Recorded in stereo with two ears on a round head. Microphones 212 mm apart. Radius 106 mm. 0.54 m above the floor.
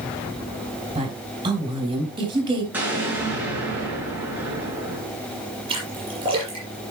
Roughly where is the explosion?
Centre.